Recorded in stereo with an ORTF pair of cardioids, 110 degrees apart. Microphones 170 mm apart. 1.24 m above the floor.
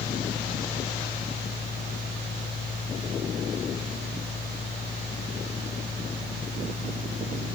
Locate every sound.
0.0 s a fan: 60° left, 5 m